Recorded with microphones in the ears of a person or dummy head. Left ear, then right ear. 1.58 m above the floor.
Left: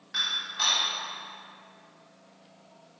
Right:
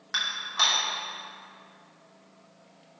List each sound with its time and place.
0.1 s dishes clattering: 50° right (ahead or behind), 3 m